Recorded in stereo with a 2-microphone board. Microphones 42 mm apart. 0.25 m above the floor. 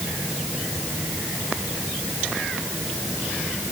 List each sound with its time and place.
Only background noise.